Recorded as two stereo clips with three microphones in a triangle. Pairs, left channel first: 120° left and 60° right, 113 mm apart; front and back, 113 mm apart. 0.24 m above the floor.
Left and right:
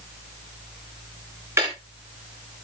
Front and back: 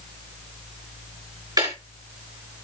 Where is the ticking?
125° right, 5.5 m.